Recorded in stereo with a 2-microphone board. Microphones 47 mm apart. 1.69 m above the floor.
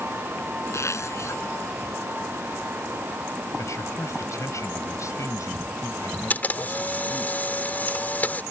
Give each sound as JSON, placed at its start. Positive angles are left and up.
{"t": 0.7, "sound": "a zipper", "side_deg": 65}
{"t": 3.6, "sound": "a man speaking", "side_deg": 75}
{"t": 6.3, "sound": "a camera shutter", "side_deg": 30}